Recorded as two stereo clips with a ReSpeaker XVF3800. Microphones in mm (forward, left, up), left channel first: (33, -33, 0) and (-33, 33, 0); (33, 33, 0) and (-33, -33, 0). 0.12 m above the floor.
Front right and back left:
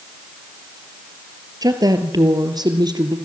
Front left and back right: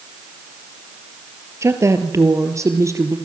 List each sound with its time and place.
1.6 s a woman speaking: 175° left, 3 m; by 3.2 s 170° left, 3.5 m